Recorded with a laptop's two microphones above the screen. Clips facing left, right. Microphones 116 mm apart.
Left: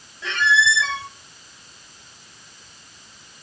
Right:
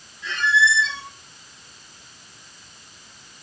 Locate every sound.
0.2 s a squeak: 85° left, 3.5 m